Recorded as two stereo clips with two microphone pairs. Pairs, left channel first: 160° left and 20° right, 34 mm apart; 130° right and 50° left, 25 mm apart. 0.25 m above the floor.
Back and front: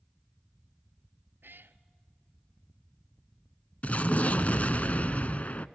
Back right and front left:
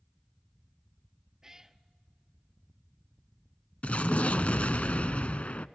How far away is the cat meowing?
About 0.7 m.